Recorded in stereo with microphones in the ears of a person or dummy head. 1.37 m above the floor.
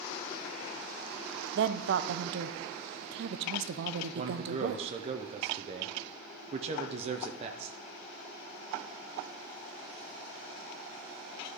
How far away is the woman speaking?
About 0.6 m.